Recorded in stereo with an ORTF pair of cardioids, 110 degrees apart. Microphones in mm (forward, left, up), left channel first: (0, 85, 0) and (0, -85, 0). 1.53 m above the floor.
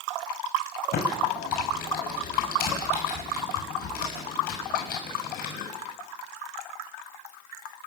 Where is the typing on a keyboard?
60° left, 6.5 m.